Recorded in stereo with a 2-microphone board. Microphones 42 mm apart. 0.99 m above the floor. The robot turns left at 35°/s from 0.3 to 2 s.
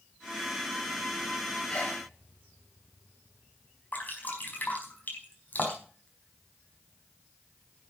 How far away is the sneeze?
About 5.5 m.